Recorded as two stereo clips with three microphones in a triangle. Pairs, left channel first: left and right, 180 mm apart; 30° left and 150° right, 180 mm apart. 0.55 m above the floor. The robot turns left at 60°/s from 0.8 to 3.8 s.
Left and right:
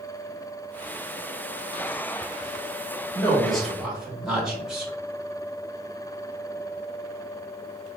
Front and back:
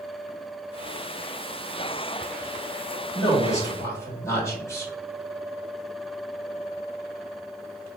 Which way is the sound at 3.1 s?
30° left.